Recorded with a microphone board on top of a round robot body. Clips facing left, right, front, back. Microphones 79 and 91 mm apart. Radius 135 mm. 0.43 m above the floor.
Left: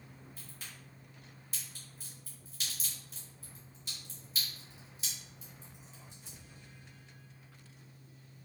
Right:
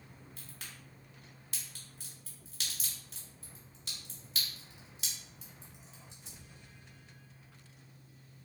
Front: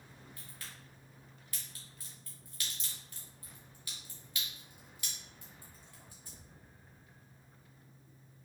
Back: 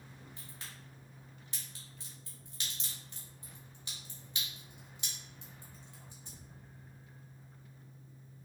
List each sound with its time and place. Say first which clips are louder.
0.4 s a crack: even, back 1 dB; 115° right, 1.6 m